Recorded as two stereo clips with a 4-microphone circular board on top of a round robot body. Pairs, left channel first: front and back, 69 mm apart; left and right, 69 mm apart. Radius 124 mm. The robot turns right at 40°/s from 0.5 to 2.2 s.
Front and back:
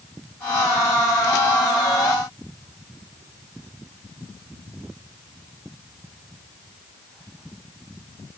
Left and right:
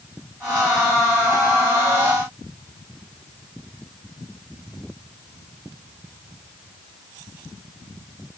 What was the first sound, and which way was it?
Only background noise.